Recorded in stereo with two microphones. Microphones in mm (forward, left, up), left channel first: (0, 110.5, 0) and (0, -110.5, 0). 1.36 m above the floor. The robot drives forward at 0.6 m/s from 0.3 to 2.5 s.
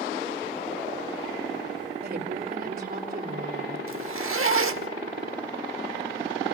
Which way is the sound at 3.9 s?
75° right (ahead or behind).